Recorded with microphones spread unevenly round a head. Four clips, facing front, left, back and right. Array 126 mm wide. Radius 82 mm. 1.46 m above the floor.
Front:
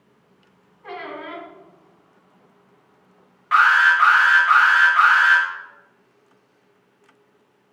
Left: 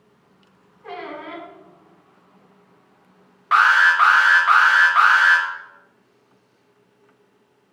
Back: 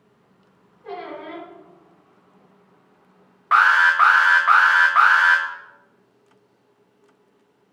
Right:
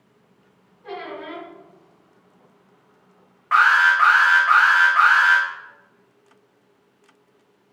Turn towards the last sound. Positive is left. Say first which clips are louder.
# left 1 dB, even
turn(degrees=170)